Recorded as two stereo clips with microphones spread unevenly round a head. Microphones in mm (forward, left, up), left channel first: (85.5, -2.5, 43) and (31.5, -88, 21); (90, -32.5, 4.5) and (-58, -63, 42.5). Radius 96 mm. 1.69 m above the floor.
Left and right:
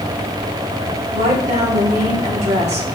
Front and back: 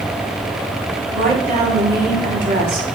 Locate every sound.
1.1 s a woman speaking: 135° right, 4 m; by 2.9 s 140° right, 2.5 m